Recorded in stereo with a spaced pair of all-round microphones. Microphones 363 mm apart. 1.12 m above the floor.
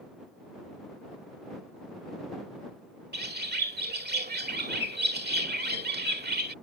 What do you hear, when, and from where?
3.1 s a bird: 25° right (ahead or behind)